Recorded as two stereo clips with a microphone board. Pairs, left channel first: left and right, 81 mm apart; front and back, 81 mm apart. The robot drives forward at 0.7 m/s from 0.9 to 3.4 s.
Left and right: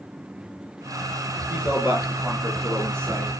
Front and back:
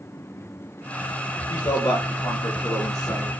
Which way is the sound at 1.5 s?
20° right.